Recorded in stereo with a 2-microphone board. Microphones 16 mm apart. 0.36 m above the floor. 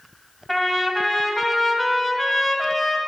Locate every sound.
0.5 s a trumpet: 10° left (ahead or behind), 1.9 m